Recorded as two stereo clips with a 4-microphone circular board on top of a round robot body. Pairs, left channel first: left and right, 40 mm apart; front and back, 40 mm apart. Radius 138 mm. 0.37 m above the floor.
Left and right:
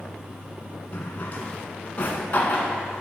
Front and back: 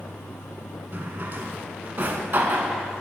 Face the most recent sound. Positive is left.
turn(degrees=135)